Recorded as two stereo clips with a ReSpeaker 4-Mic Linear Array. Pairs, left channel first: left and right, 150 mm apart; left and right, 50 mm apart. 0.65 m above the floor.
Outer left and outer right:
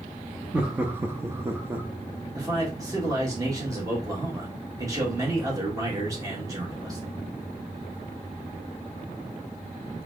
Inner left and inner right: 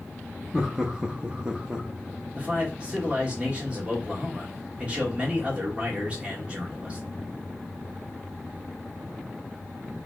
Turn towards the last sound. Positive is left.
turn(degrees=-20)  # may be behind; listen again after turning